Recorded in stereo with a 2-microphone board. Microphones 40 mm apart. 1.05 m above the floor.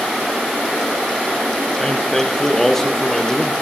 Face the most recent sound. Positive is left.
turn(degrees=10)  # may be behind; listen again after turning